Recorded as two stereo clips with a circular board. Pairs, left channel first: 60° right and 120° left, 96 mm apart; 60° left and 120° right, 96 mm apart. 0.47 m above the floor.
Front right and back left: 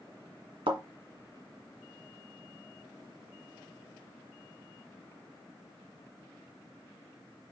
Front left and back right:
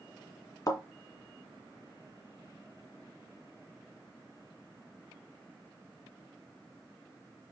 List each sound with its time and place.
0.7 s a thud: 110° left, 1.9 m